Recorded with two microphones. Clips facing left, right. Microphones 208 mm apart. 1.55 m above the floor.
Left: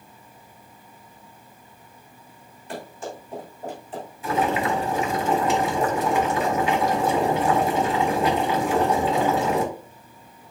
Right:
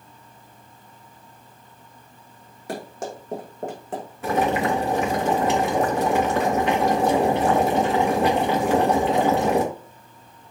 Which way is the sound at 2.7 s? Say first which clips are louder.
Right 3 dB; 70° right (ahead or behind).